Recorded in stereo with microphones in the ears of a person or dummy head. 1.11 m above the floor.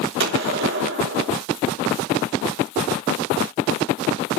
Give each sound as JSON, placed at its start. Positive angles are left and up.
{"t": 0.2, "sound": "a gunshot", "side_deg": -65, "distance_m": 3.0}